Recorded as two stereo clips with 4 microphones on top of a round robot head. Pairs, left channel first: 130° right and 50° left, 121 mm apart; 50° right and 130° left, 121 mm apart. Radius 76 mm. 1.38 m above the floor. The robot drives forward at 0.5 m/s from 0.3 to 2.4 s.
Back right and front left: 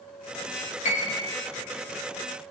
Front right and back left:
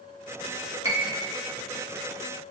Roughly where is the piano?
Behind.